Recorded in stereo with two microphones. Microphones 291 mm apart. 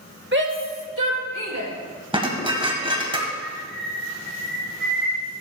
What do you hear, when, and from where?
0.3 s a shout: 35° right (ahead or behind), 1.6 m; by 1.7 s 60° right (ahead or behind), 3.5 m
2.1 s dishes clattering: 15° right (ahead or behind), 2 m
3.4 s a bird: 35° right (ahead or behind), 3 m